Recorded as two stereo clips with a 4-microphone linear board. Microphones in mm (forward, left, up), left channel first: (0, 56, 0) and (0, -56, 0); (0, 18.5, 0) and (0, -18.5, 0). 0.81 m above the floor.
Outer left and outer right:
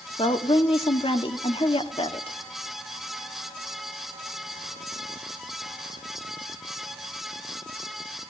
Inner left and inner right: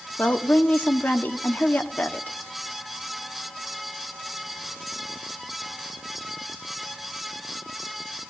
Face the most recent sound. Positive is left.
turn(degrees=55)  # may be behind; listen again after turning